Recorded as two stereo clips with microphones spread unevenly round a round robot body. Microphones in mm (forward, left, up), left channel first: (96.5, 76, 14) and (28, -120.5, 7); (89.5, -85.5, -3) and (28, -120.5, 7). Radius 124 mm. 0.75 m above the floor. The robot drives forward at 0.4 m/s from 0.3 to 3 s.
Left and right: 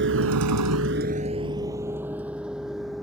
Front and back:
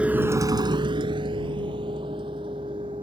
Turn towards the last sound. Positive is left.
turn(degrees=160)